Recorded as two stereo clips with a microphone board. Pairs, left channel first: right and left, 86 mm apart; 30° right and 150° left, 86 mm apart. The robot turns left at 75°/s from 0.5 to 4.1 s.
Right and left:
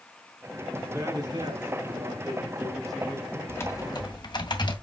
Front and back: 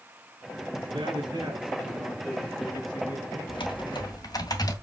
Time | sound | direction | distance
0.8 | a man speaking | 160° left | 6 m
3.5 | typing on a keyboard | 25° right | 2 m